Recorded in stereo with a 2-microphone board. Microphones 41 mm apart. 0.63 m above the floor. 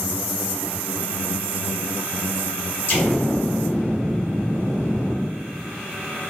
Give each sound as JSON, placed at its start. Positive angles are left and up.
{"t": 2.9, "sound": "an explosion", "side_deg": 55, "distance_m": 1.6}